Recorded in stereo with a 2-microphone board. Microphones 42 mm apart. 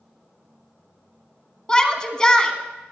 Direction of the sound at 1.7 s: 20° left (ahead or behind).